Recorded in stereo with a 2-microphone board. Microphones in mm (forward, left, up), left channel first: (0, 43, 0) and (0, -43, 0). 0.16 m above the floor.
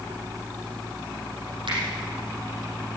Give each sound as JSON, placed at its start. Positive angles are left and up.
{"t": 1.7, "sound": "a finger snap", "side_deg": -75, "distance_m": 5.5}